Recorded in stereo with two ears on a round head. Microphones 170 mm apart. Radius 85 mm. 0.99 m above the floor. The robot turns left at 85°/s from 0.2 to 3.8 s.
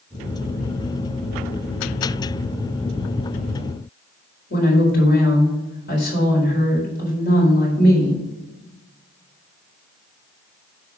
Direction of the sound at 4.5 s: 60° left (ahead or behind).